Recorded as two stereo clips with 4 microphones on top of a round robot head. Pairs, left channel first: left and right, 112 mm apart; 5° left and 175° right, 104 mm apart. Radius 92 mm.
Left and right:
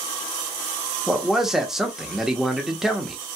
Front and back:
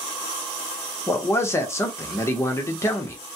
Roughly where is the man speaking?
Ahead.